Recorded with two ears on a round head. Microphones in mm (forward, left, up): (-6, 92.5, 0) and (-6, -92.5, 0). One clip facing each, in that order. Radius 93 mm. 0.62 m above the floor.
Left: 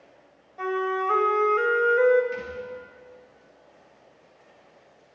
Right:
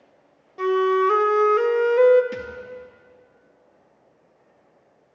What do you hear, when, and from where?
0.6 s a flute: 50° right (ahead or behind), 0.8 m
2.3 s a thud: 75° right (ahead or behind), 3 m